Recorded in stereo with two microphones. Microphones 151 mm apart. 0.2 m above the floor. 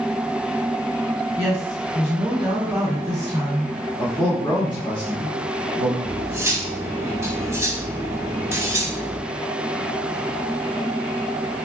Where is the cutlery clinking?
20° right (ahead or behind), 0.6 m.